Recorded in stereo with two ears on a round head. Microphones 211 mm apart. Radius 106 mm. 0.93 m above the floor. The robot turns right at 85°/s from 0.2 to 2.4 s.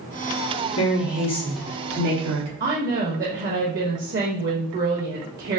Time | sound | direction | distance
0.8 | a woman speaking | 110° left | 1.3 m
2.6 | a woman speaking | 40° right (ahead or behind) | 0.7 m